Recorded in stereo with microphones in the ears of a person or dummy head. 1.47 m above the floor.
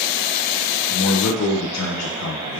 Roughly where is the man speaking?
Left.